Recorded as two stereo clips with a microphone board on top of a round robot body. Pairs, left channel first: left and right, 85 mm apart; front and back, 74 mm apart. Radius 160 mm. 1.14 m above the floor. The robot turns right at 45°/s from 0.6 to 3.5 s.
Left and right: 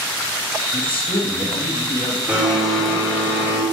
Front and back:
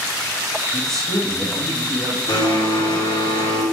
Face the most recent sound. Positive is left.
turn(degrees=35)